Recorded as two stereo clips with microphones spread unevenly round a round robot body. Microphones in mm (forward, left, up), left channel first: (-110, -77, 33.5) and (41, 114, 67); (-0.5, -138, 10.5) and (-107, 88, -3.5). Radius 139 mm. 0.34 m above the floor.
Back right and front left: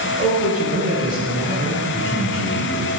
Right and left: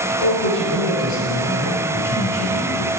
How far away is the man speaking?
About 6 m.